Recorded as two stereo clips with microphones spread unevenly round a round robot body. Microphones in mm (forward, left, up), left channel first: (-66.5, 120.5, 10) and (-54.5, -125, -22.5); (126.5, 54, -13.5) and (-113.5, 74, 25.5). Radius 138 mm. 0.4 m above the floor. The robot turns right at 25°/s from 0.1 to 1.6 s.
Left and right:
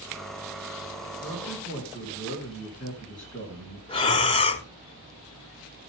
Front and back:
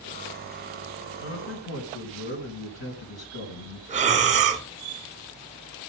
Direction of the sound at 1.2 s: 5° right.